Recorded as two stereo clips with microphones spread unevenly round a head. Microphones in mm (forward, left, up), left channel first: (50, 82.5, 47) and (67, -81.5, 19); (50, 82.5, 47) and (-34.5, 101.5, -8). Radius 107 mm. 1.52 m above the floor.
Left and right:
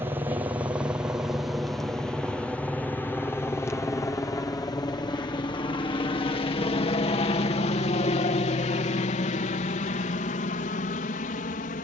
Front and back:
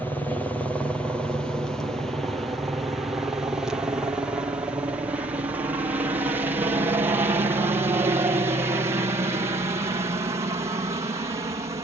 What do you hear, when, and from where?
0.0 s a helicopter: 125° right; by 11.8 s 145° left